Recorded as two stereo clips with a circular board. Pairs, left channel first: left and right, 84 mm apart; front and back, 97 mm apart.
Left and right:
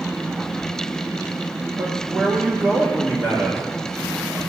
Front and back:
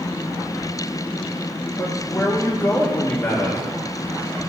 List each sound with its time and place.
1.8 s a man speaking: 50° right, 1.1 m